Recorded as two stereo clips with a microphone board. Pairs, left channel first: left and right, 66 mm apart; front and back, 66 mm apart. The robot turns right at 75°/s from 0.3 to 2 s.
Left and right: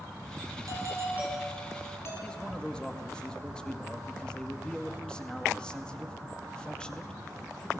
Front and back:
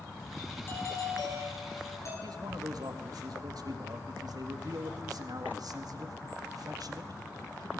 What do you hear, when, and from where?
0.7 s a doorbell: 60° right, 6 m; by 2.1 s 40° left, 6 m
2.2 s a man speaking: 170° left, 1.9 m